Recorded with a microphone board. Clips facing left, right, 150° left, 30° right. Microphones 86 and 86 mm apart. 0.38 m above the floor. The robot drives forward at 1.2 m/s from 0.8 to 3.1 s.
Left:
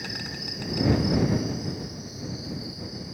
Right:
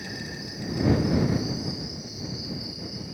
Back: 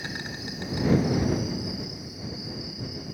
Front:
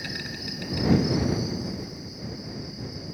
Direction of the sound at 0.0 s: 90° left.